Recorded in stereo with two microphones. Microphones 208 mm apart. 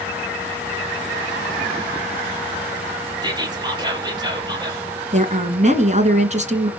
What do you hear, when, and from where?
3.2 s whispering: 20° right (ahead or behind), 5 m
5.1 s a woman speaking: 35° right (ahead or behind), 2 m